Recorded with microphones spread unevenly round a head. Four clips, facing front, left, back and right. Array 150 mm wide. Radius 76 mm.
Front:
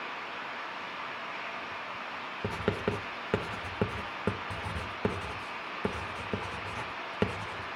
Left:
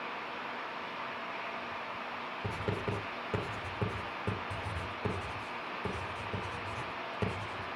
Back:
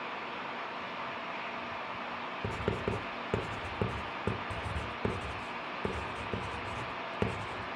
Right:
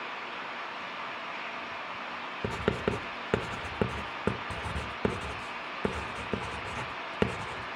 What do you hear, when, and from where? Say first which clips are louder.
2.4 s writing: right 7 dB, front 3 dB; 55° right, 2 m